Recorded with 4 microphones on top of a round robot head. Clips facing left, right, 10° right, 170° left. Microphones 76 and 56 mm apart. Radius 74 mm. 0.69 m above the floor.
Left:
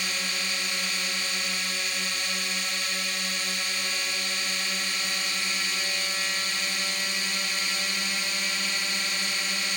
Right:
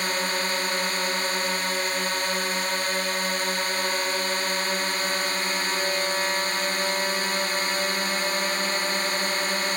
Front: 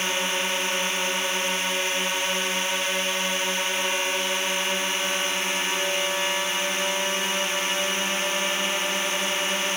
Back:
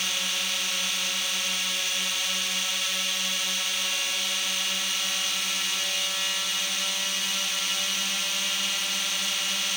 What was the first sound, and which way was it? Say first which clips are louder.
A drone: right 6 dB, front 5 dB; 60° right.